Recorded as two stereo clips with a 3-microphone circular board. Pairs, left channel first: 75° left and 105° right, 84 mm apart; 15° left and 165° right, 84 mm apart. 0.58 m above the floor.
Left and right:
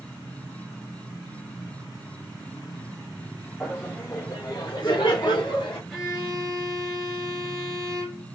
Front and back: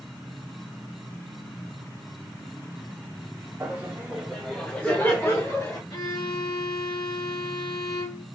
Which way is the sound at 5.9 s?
10° right.